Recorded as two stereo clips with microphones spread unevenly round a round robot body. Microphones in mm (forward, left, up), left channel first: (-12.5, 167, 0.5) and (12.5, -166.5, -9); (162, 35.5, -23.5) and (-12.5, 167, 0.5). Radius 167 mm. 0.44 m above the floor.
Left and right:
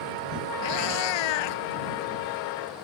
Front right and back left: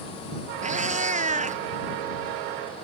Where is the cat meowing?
85° left.